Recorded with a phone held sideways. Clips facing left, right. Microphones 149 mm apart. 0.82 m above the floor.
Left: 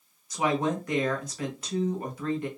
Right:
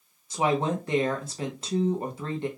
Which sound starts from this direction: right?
A woman speaking, at 0.3 s.